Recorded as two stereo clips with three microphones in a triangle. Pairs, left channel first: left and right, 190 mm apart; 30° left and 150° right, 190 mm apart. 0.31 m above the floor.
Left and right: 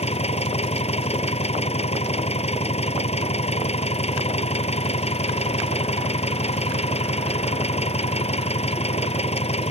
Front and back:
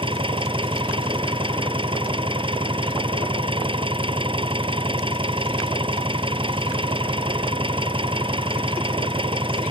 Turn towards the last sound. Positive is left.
turn(degrees=145)